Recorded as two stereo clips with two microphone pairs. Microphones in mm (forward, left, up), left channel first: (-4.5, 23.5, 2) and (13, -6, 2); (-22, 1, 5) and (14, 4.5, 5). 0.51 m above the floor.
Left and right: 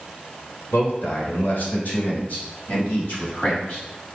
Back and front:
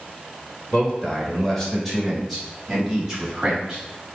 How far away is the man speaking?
About 1.5 m.